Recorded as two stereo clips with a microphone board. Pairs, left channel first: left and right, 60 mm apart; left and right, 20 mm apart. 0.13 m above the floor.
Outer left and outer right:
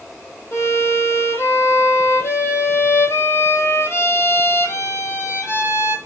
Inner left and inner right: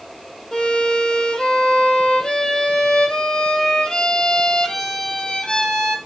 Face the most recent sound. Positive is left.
turn(degrees=45)  # may be behind; listen again after turning